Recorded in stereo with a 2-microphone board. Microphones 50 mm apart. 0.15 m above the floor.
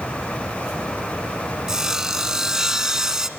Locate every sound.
1.7 s sawing: 10° right (ahead or behind), 0.9 m